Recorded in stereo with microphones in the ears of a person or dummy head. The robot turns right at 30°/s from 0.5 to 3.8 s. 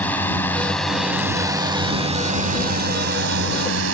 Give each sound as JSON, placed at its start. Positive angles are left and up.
{"t": 0.0, "sound": "a drone", "side_deg": 10}